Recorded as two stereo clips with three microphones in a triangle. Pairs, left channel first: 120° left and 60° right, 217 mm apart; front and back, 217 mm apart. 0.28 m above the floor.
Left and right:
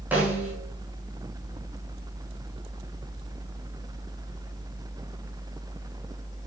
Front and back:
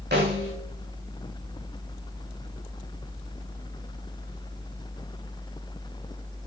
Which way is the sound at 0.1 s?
140° right.